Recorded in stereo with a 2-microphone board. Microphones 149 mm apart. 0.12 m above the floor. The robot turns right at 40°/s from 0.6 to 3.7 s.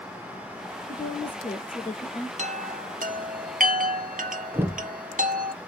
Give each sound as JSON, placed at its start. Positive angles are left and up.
{"t": 0.9, "sound": "a woman speaking", "azimuth_deg": 55, "distance_m": 1.5}
{"t": 2.4, "sound": "a chime", "side_deg": -50, "distance_m": 0.6}
{"t": 4.5, "sound": "knocking", "side_deg": -15, "distance_m": 1.0}